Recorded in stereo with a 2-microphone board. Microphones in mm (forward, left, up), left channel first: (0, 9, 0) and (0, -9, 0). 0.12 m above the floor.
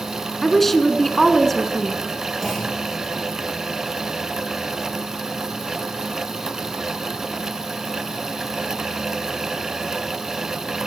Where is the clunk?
20° left (ahead or behind), 8 m.